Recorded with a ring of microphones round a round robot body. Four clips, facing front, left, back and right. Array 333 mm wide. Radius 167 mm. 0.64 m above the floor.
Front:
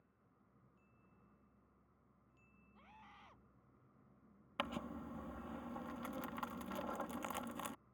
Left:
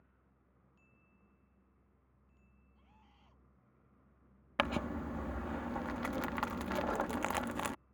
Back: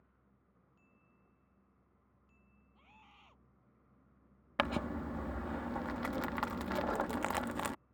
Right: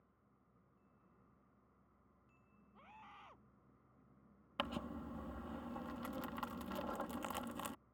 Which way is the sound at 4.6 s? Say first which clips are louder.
Left 8 dB, back 9 dB; 140° left.